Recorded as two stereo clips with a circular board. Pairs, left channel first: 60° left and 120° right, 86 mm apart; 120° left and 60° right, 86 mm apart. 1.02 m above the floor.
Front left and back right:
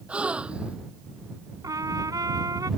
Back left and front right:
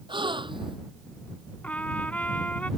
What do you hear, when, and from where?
0.1 s a gasp: 45° right
1.6 s a trumpet: 165° right